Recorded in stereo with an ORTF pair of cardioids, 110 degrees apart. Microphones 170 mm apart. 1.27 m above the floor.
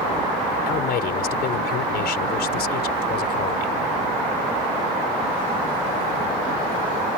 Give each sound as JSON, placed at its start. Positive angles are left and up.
{"t": 0.7, "sound": "a man speaking", "azimuth_deg": 70}